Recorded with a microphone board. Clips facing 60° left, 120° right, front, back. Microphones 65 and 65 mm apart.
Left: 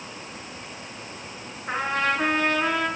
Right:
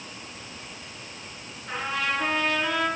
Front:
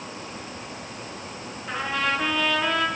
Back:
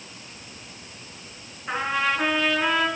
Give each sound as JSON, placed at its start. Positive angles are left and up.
{"t": 1.7, "sound": "a trumpet", "azimuth_deg": 110, "distance_m": 4.0}